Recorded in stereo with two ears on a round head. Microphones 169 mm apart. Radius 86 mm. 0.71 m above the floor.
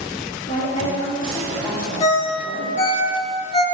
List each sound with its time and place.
0.5 s a woman speaking: 40° left (ahead or behind), 1.9 m; by 3.0 s 20° right (ahead or behind), 2.5 m
2.0 s a ringtone: 30° left (ahead or behind), 1.6 m